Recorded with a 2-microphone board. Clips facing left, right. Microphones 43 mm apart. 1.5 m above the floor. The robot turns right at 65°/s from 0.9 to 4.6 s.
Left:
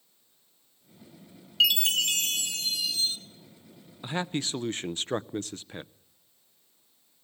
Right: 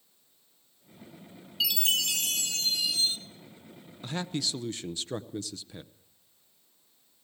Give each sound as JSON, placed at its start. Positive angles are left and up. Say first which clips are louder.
{"t": 1.6, "sound": "a chime", "louder": "left 5 dB", "azimuth_deg": 105, "distance_m": 2.0}
{"t": 4.0, "sound": "a man speaking", "louder": "left 2 dB", "azimuth_deg": 25, "distance_m": 0.6}